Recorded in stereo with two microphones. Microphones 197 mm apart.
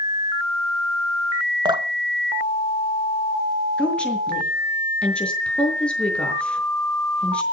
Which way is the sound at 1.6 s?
25° right (ahead or behind).